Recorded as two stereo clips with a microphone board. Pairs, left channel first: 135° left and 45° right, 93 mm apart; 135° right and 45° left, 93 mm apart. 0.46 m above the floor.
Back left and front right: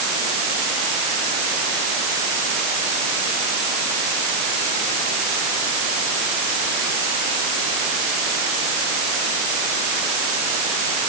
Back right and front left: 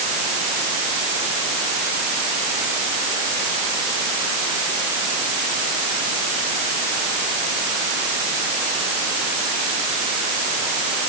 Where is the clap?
No clap in this recording.